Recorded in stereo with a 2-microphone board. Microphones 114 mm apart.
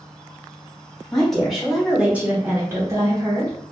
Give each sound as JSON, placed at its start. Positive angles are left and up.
{"t": 1.1, "sound": "a woman speaking", "side_deg": 5, "distance_m": 1.1}